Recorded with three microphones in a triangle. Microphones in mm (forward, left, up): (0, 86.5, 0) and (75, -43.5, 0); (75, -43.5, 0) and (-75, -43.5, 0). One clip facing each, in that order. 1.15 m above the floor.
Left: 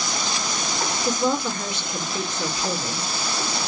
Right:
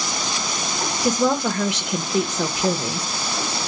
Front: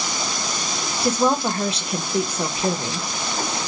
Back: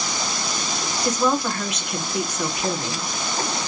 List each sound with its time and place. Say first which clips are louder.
1.0 s a woman speaking: right 4 dB, front 2 dB; 60° right, 0.7 m